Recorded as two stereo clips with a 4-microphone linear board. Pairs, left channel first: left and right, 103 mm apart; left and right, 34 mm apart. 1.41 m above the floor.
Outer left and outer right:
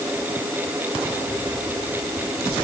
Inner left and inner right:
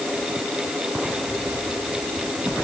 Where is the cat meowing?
No cat meowing in this recording.